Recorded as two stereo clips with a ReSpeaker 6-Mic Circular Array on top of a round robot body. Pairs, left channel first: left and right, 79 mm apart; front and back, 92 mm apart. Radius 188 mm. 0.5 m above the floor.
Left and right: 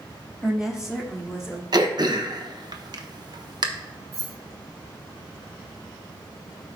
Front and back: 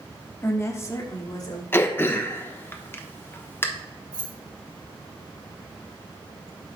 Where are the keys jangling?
140° right, 2.0 m.